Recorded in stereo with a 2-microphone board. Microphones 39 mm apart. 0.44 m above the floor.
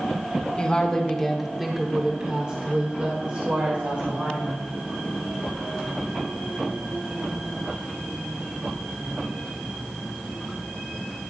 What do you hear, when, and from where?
0.6 s a woman speaking: 30° left (ahead or behind), 1.2 m; by 4.6 s 60° right (ahead or behind), 2 m